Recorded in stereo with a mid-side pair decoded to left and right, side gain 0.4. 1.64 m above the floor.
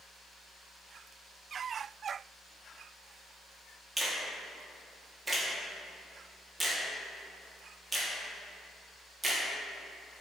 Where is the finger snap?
25° right, 0.7 m.